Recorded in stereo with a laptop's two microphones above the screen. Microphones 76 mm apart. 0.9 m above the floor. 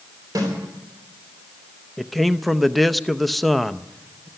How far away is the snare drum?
About 3.5 m.